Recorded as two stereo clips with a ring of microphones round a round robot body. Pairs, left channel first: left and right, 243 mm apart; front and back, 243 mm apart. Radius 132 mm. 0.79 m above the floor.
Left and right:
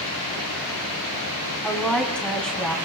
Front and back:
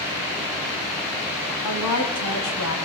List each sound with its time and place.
1.6 s a woman speaking: 5° left, 5.5 m